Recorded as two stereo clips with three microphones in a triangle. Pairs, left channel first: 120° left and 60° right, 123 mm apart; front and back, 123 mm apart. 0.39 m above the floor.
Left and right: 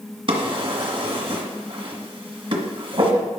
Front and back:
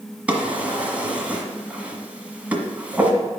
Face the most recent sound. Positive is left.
turn(degrees=-100)